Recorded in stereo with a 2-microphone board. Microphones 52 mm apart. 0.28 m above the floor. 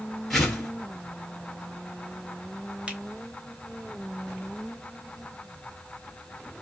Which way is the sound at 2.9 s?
20° right (ahead or behind).